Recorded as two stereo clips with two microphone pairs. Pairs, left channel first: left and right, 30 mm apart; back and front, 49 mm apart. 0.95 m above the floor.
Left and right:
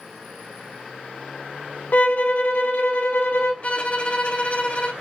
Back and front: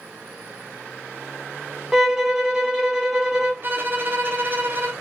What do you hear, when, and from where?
1.9 s a violin: 80° left, 0.7 m
3.6 s a violin: 45° left, 0.8 m